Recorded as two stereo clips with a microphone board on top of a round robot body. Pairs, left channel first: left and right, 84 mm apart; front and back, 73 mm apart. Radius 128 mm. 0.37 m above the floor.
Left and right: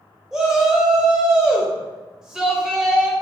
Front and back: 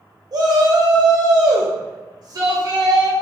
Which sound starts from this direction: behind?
A shout, at 0.3 s.